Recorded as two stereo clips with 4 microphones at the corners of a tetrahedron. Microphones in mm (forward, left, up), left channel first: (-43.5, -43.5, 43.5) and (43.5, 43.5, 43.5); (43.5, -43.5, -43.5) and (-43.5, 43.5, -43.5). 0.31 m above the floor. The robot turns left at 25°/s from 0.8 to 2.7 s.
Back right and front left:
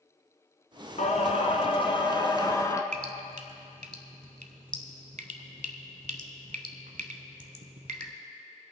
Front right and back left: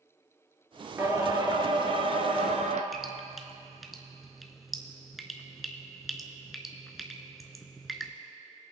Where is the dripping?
45° left, 0.9 m.